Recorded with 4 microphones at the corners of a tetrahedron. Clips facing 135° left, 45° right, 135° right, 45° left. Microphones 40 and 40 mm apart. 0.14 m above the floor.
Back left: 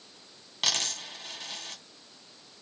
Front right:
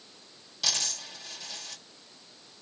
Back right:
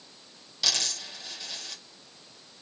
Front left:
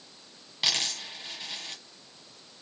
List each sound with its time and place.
0.6 s a dropped coin: 95° left, 1.5 m